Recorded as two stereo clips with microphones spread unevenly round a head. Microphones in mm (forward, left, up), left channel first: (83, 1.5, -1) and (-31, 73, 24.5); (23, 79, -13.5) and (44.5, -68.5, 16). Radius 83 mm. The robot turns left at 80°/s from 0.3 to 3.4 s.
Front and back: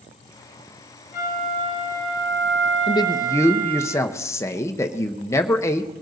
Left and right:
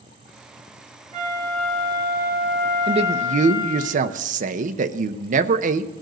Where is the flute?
40° right, 8 m; by 3.9 s 140° left, 8 m.